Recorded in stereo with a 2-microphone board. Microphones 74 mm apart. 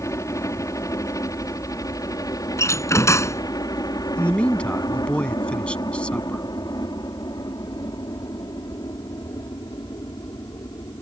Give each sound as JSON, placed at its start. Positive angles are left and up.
{"t": 0.0, "sound": "a helicopter", "side_deg": 45}
{"t": 2.6, "sound": "a door slam", "side_deg": 40}
{"t": 4.2, "sound": "a man speaking", "side_deg": 15}